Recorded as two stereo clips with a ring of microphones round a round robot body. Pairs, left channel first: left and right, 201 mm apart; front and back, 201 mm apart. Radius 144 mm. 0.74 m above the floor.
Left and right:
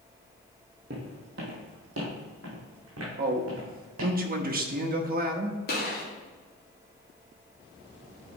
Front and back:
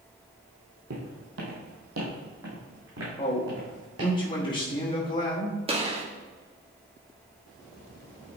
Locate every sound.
0.9 s footsteps: 145° right, 1.8 m; by 4.2 s 135° right, 3.5 m
3.2 s a man speaking: 65° right, 1.1 m
5.7 s a gunshot: 125° left, 1.9 m